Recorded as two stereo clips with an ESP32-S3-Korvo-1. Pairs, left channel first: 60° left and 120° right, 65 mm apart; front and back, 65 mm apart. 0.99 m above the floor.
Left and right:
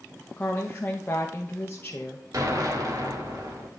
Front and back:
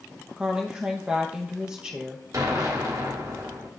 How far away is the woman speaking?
About 0.7 m.